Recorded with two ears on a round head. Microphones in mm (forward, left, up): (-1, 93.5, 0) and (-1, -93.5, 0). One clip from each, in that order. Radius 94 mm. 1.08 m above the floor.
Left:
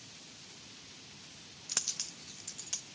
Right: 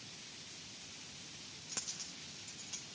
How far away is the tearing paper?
I don't hear tearing paper.